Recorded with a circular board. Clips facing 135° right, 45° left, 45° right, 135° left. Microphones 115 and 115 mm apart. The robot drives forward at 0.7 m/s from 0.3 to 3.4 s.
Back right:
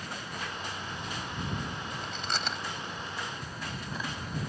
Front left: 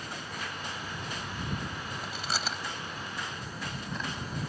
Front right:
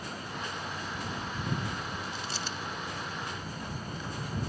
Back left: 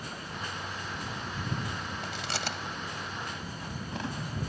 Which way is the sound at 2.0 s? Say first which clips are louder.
Even, back left 2 dB; 125° left.